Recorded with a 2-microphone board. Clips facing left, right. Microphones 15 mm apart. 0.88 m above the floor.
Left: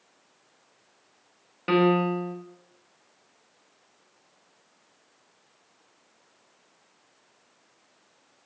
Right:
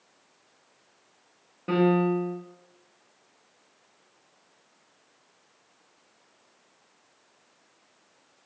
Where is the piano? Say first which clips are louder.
Left 1 dB; 70° left (ahead or behind), 0.5 m.